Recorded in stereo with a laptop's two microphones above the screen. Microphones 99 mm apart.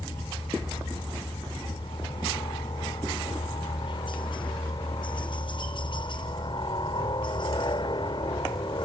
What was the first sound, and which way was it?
A helicopter, 55° left (ahead or behind).